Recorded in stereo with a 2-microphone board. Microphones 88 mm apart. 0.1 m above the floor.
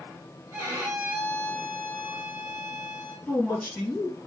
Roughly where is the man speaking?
Centre.